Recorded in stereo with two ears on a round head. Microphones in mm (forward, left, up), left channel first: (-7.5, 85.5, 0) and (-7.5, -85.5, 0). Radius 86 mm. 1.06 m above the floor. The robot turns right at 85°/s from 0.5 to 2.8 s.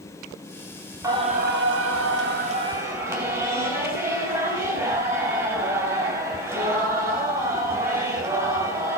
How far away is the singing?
About 3 m.